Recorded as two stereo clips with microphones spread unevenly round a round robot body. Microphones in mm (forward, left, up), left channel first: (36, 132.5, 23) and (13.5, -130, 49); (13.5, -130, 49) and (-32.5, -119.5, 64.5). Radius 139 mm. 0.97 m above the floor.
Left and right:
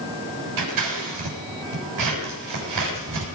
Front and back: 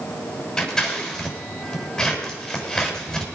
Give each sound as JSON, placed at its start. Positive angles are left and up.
{"t": 0.6, "sound": "scissors", "azimuth_deg": -90, "distance_m": 6.5}